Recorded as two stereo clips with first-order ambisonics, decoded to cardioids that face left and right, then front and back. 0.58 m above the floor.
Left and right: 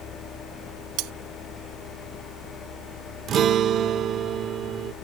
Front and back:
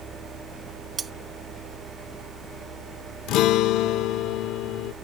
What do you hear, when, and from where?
1.0 s cutlery clinking: 110° right
3.3 s a guitar: 35° right